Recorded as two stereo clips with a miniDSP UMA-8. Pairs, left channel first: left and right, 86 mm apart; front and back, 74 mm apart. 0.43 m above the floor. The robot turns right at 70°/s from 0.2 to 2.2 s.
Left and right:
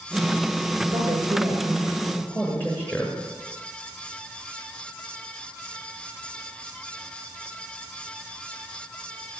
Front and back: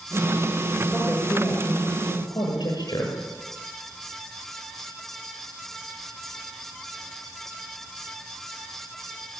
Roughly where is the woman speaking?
Right.